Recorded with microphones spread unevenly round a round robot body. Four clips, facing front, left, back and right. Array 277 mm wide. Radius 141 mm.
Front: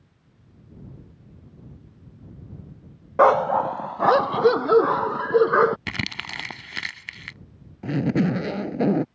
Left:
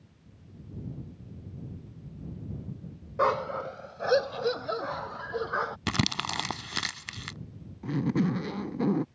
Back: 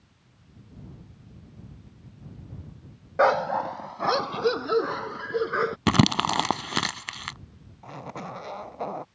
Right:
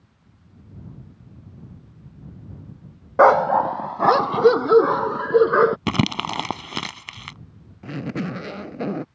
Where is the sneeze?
No sneeze in this recording.